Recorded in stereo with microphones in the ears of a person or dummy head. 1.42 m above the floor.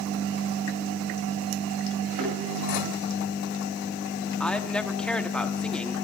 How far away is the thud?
About 9 m.